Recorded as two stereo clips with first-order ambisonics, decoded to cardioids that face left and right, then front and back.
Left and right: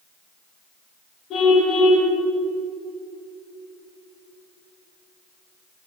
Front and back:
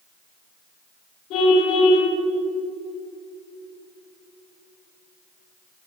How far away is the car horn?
About 9.5 m.